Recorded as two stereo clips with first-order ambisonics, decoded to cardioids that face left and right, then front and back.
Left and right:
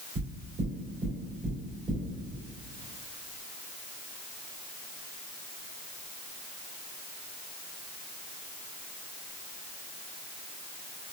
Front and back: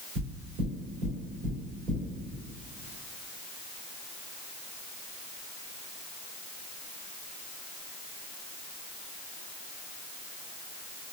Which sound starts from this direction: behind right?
Knocking, at 0.1 s.